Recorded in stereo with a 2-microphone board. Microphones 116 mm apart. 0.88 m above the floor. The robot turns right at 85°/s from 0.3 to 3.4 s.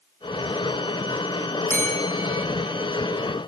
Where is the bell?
15° left, 3 m; by 2.5 s 80° left, 3 m.